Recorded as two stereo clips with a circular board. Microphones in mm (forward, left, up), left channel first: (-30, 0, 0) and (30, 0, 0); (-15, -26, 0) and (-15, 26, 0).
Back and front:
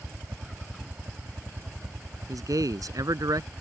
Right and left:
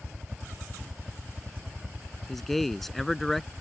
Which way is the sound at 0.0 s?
25° left.